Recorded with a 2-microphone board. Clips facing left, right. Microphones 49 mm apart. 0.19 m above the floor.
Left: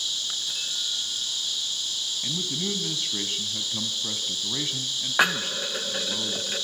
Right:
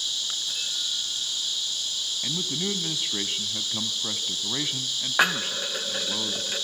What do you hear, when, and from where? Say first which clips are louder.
2.2 s a man speaking: right 1 dB; 20° right (ahead or behind), 1.2 m